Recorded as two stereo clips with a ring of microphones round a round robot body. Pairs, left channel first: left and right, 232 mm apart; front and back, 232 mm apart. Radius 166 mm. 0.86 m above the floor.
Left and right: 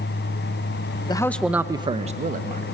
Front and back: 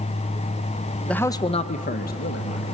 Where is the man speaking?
80° left, 0.7 m; by 2.6 s 40° right, 1.4 m.